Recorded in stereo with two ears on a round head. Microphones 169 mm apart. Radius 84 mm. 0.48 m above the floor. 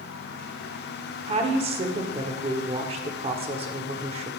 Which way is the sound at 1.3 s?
30° right (ahead or behind).